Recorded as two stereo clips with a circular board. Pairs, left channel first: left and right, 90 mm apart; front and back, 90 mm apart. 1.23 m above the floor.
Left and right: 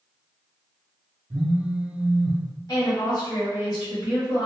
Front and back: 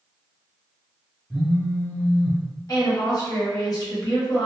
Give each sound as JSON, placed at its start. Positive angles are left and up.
{"t": 1.3, "sound": "a phone buzzing", "azimuth_deg": -85, "distance_m": 0.9}
{"t": 2.7, "sound": "a woman speaking", "azimuth_deg": 45, "distance_m": 1.2}